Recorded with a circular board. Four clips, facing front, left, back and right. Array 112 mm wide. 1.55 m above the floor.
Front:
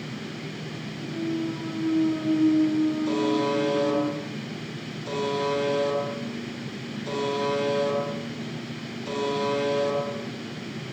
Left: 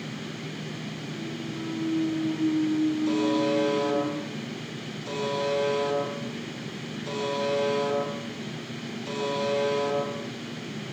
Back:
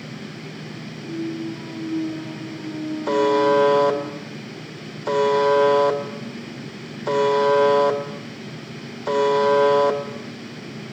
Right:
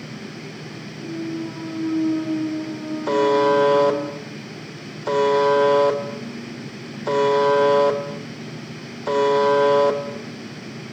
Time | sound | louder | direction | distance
1.0 | a clunk | right 12 dB, back 1 dB | 65° right | 6.5 m
3.1 | a buzzer | right 7 dB, back 7 dB | 135° right | 3.5 m